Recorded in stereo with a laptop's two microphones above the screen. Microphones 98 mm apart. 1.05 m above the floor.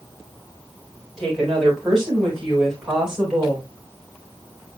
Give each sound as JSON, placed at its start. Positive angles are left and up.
{"t": 1.2, "sound": "a woman speaking", "side_deg": 5, "distance_m": 4.5}